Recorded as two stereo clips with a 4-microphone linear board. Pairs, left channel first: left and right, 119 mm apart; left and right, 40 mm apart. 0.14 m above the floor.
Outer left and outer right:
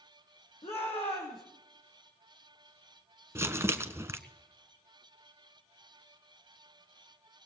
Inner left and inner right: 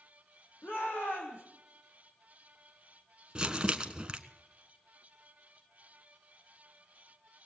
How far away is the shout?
About 7.5 m.